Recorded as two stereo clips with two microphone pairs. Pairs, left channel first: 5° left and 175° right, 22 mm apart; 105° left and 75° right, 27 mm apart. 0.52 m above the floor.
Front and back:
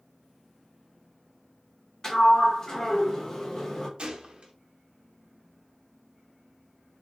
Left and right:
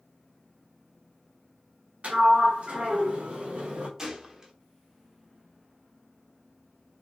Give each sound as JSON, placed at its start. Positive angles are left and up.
{"t": 2.0, "sound": "a sliding door", "azimuth_deg": -55, "distance_m": 0.9}
{"t": 4.0, "sound": "a gunshot", "azimuth_deg": -140, "distance_m": 0.7}